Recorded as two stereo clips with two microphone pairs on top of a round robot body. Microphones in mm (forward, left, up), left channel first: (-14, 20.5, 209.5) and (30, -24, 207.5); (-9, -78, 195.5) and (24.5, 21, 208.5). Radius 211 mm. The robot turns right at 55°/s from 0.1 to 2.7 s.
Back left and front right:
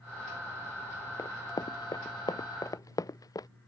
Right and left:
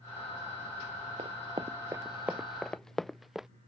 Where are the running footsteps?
100° left; by 3.5 s 155° left.